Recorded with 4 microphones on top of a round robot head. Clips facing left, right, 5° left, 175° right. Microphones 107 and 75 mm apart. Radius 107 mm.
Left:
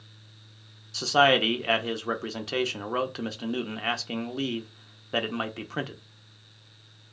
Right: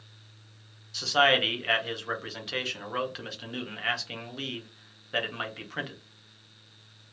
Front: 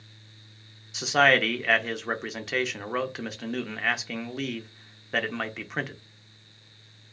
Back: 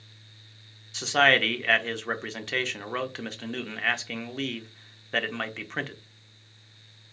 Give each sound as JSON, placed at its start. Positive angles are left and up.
{"t": 0.9, "sound": "a man speaking", "azimuth_deg": 85, "distance_m": 0.7}